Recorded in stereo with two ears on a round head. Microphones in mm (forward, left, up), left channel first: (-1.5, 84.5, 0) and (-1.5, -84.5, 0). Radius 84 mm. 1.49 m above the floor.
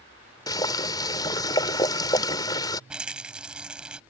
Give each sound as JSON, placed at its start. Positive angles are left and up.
{"t": 0.5, "sound": "boiling", "side_deg": 20}
{"t": 2.9, "sound": "a rattle", "side_deg": -5}